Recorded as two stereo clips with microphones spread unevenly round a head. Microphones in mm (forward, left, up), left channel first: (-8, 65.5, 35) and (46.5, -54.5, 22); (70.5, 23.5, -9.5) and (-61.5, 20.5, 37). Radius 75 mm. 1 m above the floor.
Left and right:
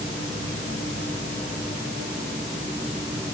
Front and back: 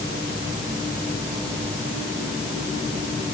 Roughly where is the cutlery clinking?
No cutlery clinking in this recording.